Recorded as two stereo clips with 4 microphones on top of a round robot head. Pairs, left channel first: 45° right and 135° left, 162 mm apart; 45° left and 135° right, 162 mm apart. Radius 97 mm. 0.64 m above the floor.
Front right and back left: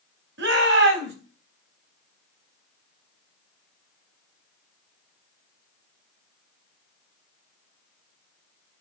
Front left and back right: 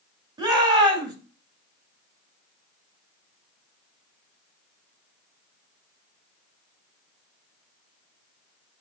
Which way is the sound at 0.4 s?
155° left.